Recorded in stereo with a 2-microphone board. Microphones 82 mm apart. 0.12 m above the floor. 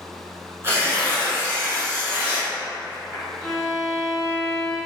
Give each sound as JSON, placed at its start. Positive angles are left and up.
{"t": 0.6, "sound": "tearing paper", "side_deg": -30, "distance_m": 1.0}
{"t": 3.4, "sound": "a violin", "side_deg": 15, "distance_m": 1.7}